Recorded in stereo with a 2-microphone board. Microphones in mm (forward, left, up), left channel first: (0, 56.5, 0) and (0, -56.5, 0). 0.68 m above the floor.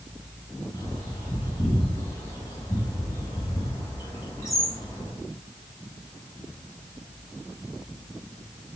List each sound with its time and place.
0.7 s a bird: 30° left (ahead or behind), 3.5 m